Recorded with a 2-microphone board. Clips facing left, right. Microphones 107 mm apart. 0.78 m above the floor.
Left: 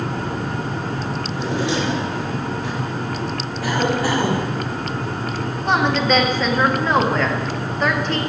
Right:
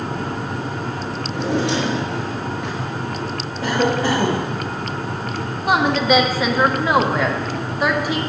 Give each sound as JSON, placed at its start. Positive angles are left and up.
{"t": 1.3, "sound": "a drawer", "side_deg": -60, "distance_m": 5.0}
{"t": 3.6, "sound": "a cough", "side_deg": -25, "distance_m": 3.5}
{"t": 5.7, "sound": "a woman speaking", "side_deg": -10, "distance_m": 1.5}